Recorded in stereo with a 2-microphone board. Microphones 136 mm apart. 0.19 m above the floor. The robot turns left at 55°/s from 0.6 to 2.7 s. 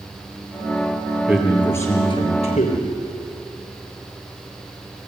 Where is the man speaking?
175° right, 4 m; by 2.9 s 110° left, 4 m.